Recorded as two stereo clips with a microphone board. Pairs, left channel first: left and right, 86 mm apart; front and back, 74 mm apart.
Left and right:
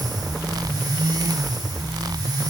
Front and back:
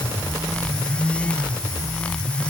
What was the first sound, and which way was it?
Only background noise.